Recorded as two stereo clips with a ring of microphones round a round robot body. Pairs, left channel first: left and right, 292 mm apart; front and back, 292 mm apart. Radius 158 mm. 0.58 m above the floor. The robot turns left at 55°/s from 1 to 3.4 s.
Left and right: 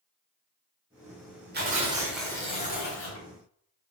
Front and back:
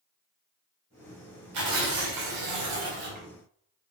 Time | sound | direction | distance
1.5 | tearing paper | 145° right | 3.5 m